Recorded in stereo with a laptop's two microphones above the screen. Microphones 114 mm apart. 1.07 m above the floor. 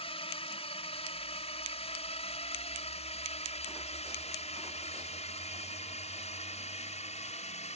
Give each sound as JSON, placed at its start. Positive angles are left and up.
{"t": 0.0, "sound": "a drone", "side_deg": 55}